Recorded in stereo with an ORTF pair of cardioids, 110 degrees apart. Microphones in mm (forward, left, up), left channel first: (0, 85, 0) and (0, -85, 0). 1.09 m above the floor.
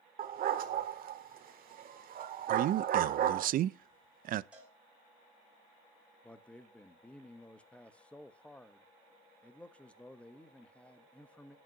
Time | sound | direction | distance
0.2 | a dog barking | 60° right | 1.6 m
2.5 | a man speaking | 55° right | 0.6 m
4.5 | a cowbell | 5° right | 7 m
6.2 | a man speaking | 10° left | 1.1 m